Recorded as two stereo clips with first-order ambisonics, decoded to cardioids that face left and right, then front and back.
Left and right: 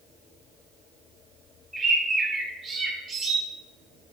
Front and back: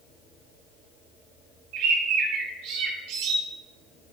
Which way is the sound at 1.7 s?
160° right.